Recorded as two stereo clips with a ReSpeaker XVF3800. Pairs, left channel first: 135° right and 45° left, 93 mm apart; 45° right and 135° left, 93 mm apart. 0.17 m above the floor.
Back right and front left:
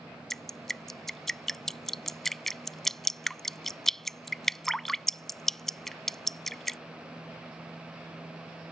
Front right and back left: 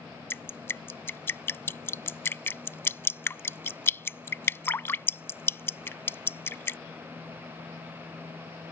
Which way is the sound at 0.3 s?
55° right.